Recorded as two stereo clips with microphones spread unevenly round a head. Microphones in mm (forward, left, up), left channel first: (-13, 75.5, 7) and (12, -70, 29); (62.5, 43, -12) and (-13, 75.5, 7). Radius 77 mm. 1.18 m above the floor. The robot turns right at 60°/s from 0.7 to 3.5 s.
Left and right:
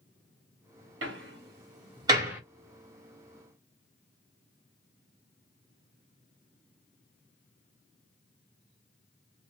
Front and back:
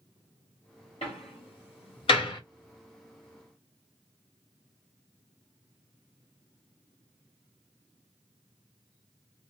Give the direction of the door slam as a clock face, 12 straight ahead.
3 o'clock.